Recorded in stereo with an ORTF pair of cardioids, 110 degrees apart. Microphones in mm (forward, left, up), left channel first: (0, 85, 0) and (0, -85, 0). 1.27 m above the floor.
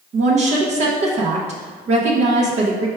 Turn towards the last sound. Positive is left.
turn(degrees=-45)